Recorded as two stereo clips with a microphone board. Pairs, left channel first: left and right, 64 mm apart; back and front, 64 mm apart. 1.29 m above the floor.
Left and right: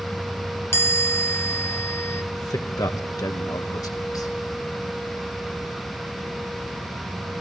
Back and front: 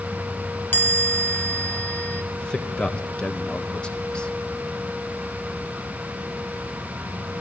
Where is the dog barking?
I don't hear a dog barking.